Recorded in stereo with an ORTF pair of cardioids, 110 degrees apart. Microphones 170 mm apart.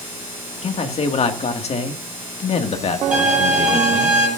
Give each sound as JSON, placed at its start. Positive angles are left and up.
{"t": 0.6, "sound": "a man speaking", "azimuth_deg": 40, "distance_m": 1.9}
{"t": 3.1, "sound": "a violin", "azimuth_deg": -5, "distance_m": 10.0}